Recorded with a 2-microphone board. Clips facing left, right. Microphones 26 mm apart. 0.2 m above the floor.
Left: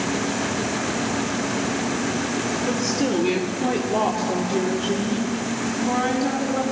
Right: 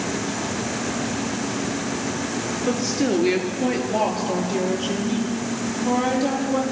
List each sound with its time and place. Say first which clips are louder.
2.7 s a woman speaking: right 3 dB; 65° right (ahead or behind), 4 m; by 6.6 s 70° right (ahead or behind), 7 m